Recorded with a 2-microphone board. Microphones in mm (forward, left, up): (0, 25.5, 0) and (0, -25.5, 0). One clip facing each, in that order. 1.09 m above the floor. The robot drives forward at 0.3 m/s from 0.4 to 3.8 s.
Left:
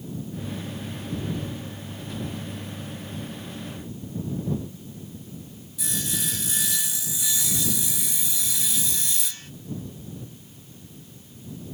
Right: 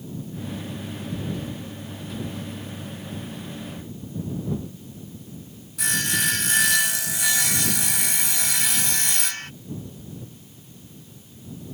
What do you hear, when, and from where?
5.8 s sawing: 60° right (ahead or behind)